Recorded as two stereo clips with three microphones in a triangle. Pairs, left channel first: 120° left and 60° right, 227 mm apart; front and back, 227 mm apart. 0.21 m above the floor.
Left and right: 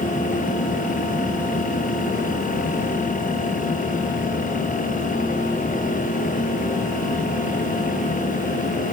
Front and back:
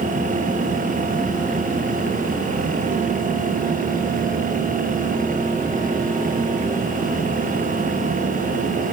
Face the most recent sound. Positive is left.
No sound to turn to.